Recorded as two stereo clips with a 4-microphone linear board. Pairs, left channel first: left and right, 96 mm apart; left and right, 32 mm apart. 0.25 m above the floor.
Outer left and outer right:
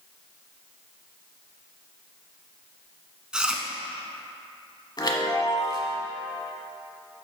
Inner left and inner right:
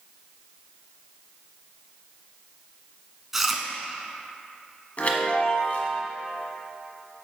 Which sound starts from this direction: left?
A chime, at 5.0 s.